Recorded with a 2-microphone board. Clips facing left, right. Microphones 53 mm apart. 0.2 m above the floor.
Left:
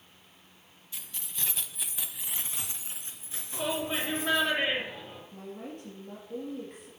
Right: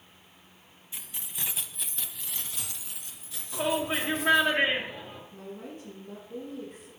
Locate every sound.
0.9 s keys jangling: 20° right (ahead or behind), 1.1 m; by 4.5 s 30° left (ahead or behind), 3 m
3.5 s a shout: 30° right (ahead or behind), 2.5 m
5.3 s a woman speaking: 55° left (ahead or behind), 5.5 m